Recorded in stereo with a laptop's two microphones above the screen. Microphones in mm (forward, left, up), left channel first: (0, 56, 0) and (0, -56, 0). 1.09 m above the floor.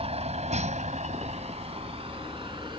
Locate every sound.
0.0 s a vehicle: 60° right (ahead or behind); by 2.8 s 45° right (ahead or behind)